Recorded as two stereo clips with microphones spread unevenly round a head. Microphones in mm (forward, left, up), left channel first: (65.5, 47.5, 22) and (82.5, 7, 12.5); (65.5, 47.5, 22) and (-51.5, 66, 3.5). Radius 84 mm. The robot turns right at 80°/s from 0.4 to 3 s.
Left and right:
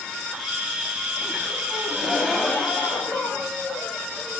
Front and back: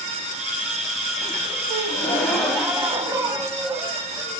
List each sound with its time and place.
1.7 s a gasp: 5° right, 1.3 m; by 4.4 s 100° left, 1.3 m